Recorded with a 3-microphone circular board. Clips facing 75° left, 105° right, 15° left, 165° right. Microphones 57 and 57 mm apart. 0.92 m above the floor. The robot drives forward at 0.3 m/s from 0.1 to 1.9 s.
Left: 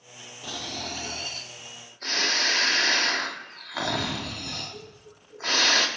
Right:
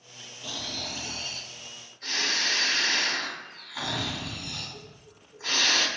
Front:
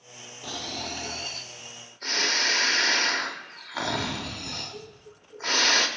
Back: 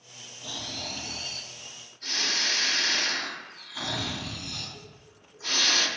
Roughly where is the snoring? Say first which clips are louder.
Left 2 dB, front 3 dB; ahead left.